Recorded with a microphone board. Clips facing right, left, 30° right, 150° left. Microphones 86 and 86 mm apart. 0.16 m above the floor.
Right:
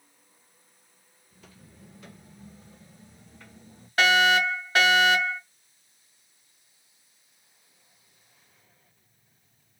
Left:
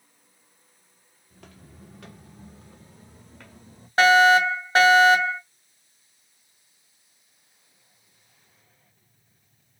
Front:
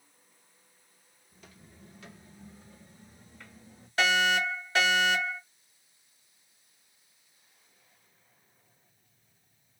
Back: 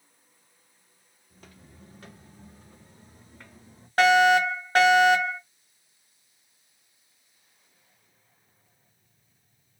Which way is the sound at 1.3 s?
110° left.